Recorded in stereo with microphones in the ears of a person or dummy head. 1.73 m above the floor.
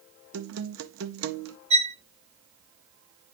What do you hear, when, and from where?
0.3 s a guitar: 70° right (ahead or behind), 0.8 m
1.7 s a violin: 35° right (ahead or behind), 0.8 m